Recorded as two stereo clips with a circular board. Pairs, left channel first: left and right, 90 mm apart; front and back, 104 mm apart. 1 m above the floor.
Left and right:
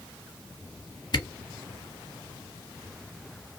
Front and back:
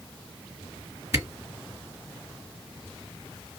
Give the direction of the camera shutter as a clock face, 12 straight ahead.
8 o'clock.